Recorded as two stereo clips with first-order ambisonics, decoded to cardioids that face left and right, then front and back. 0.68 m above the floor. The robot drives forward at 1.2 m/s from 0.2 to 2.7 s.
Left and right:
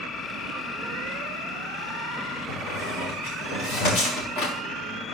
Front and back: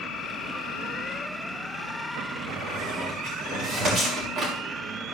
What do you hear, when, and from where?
2.5 s a squeak: 125° left, 3 m; by 4.5 s 130° left, 3.5 m